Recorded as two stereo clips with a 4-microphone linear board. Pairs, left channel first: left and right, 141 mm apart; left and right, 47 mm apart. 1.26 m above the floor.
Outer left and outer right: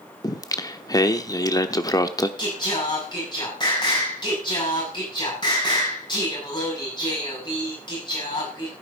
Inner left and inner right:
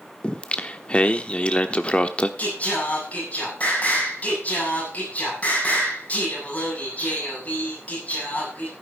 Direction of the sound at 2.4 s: 30° left (ahead or behind).